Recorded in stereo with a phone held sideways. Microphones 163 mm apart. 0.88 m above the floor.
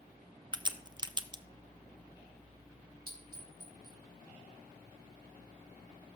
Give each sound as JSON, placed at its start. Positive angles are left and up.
{"t": 0.5, "sound": "a crack", "side_deg": -25, "distance_m": 0.5}
{"t": 3.1, "sound": "a clink", "side_deg": -70, "distance_m": 3.5}